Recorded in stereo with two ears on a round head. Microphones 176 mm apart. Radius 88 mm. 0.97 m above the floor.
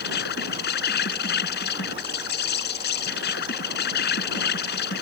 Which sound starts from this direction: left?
An insect, at 0.0 s.